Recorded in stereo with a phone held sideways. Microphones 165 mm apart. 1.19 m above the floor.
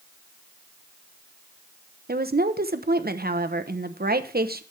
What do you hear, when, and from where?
2.1 s a woman speaking: 65° right (ahead or behind), 0.9 m